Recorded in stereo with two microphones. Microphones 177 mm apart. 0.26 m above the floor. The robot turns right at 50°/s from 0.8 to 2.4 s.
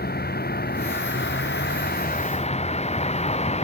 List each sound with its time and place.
0.0 s a vehicle: 65° left; by 3.6 s 145° left